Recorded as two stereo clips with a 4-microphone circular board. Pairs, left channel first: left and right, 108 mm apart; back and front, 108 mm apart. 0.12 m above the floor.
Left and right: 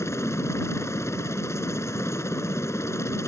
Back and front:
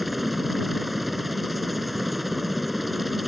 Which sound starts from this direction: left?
A helicopter, at 0.0 s.